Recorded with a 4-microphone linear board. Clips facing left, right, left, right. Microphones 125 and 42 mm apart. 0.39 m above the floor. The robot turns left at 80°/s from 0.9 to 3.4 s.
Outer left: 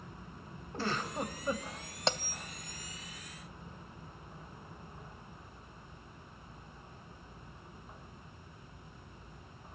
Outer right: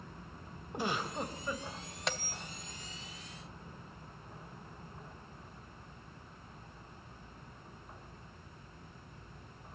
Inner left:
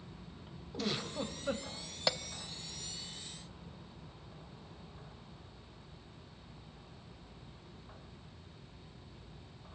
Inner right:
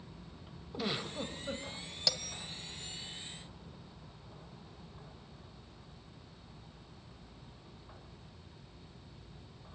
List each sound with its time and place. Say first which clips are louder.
0.7 s a giggle: even, even; 160° right, 1.6 m; by 1.7 s 135° left, 1.6 m
2.1 s a bell: outer left 5 dB, inner left 3 dB; 30° left (ahead or behind), 0.6 m; by 2.4 s 5° left (ahead or behind), 0.6 m